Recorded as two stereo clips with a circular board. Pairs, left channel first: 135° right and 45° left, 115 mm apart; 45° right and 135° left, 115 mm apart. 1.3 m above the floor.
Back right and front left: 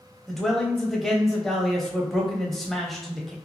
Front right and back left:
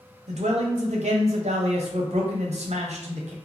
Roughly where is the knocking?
I don't hear knocking.